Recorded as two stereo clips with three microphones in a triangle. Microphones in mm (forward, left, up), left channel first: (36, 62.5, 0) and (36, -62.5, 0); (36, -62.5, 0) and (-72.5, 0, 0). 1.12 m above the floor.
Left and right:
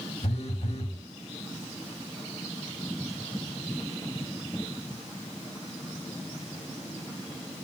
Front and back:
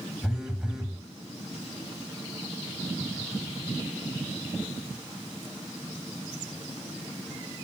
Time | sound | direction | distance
0.2 | a phone buzzing | 65° left | 1.7 m